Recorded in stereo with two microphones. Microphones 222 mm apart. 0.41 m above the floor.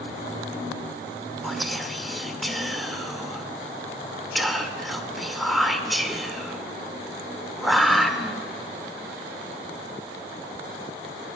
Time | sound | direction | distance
1.4 | whispering | centre (ahead or behind) | 0.9 m